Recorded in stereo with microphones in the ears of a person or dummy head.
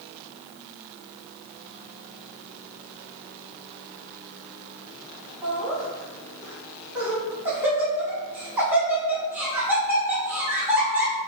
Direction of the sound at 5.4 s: 10° right (ahead or behind).